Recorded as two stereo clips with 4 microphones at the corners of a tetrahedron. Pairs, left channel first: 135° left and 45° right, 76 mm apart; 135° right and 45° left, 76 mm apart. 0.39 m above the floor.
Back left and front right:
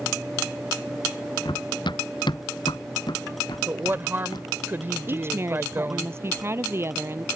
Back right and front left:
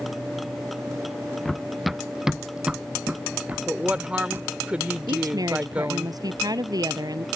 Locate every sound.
1.4 s running footsteps: 140° left; by 4.5 s 110° left
3.7 s a woman speaking: 15° right
5.1 s a woman speaking: 10° left